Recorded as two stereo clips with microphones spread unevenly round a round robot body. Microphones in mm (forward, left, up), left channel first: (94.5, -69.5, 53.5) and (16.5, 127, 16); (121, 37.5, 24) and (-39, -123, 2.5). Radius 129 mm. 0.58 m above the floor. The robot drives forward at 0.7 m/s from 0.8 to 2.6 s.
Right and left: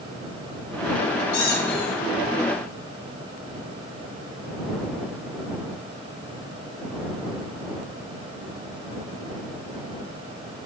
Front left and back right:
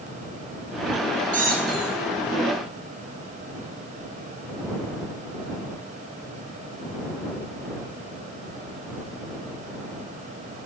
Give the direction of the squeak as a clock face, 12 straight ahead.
3 o'clock.